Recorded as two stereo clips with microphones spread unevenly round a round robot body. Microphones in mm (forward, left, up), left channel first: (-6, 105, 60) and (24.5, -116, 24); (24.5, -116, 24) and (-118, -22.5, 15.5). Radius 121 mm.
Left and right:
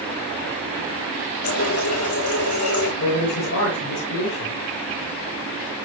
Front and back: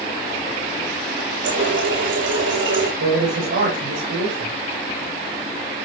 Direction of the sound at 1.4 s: 125° left.